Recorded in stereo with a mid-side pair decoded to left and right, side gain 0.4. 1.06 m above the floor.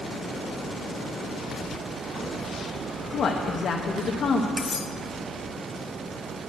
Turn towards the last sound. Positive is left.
turn(degrees=40)